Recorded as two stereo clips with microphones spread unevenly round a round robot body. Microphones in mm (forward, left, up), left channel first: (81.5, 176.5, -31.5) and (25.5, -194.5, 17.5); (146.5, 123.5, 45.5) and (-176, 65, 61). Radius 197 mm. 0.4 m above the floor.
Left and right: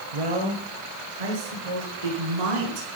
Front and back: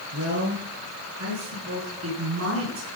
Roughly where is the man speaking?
Behind right.